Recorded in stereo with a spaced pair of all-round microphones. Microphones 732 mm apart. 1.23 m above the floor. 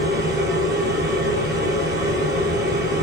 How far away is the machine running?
About 3.5 m.